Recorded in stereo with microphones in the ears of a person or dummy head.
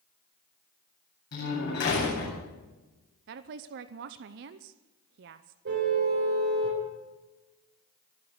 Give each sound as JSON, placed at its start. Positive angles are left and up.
{"t": 1.3, "sound": "a door slam", "side_deg": 55, "distance_m": 8.5}
{"t": 3.3, "sound": "a woman speaking", "side_deg": -55, "distance_m": 0.7}
{"t": 5.7, "sound": "a car horn", "side_deg": -65, "distance_m": 4.5}